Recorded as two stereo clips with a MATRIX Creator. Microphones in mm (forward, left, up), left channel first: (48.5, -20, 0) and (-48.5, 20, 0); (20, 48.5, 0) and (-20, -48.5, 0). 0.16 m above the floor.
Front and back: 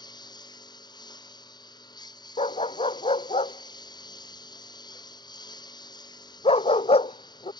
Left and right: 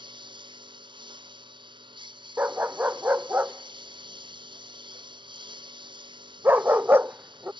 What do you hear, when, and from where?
0.0 s a lawn mower: 70° right
2.4 s a dog barking: 40° right